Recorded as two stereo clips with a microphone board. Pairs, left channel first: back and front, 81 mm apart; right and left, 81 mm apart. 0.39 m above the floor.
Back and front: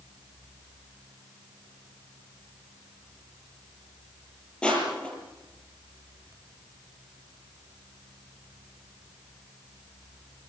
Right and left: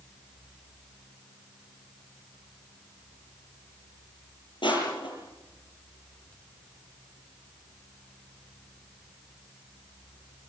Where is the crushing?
105° right, 7.5 m.